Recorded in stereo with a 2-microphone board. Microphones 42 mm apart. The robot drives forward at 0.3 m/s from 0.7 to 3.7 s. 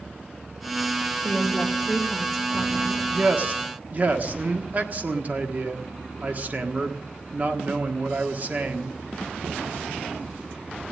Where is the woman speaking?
5° left (ahead or behind), 3 m.